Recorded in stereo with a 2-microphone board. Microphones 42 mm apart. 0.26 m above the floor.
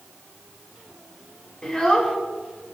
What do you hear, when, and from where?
1.6 s a child speaking: 25° left (ahead or behind), 1.4 m